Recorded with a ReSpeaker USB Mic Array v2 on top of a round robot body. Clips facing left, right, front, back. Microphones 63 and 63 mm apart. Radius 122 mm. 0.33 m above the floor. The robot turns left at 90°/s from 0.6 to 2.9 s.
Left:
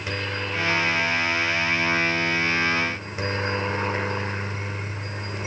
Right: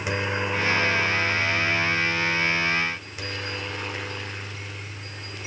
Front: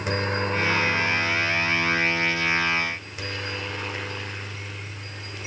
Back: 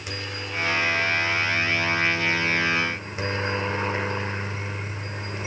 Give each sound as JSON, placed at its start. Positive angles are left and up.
{"t": 0.0, "sound": "a helicopter", "azimuth_deg": -20}